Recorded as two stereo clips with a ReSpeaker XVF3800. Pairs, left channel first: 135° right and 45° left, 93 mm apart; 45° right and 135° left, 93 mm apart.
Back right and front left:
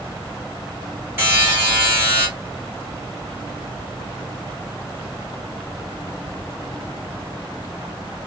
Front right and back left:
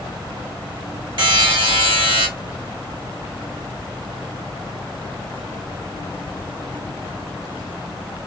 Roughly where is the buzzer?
Left.